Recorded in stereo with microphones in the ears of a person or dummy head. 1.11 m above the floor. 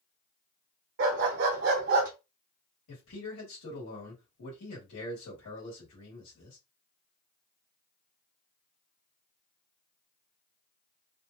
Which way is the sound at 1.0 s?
60° right (ahead or behind).